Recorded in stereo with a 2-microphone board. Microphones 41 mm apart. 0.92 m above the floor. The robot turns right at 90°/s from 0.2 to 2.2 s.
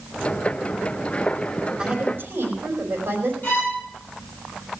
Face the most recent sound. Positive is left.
turn(degrees=40)  # may be behind; listen again after turning